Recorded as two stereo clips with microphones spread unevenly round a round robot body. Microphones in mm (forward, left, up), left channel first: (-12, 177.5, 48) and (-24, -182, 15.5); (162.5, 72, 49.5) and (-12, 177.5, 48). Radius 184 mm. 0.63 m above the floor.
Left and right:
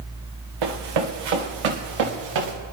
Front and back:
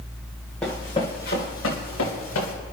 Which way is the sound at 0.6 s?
120° right.